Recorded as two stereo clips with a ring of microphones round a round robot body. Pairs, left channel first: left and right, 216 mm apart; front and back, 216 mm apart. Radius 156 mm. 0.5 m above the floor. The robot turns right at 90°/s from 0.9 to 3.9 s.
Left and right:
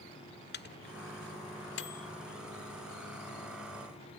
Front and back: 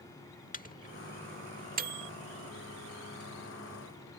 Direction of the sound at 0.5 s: 50° left.